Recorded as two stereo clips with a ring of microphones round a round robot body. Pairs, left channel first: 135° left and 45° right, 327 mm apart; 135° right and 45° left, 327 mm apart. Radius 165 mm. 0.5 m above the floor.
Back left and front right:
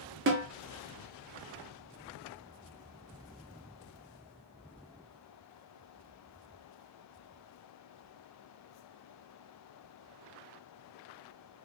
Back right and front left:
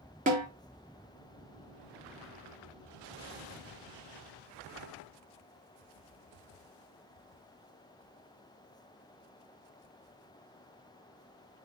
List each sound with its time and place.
0.3 s a snare drum: 10° right, 1.1 m